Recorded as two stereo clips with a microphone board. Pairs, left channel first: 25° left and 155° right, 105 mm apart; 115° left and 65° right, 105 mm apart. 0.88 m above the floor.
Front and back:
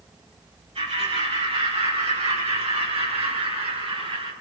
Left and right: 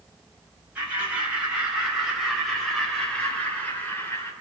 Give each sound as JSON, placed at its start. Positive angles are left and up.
{"t": 0.8, "sound": "laughter", "azimuth_deg": -145, "distance_m": 6.0}